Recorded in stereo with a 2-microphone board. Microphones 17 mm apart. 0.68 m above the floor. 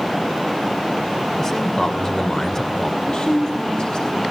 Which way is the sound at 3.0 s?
65° left (ahead or behind).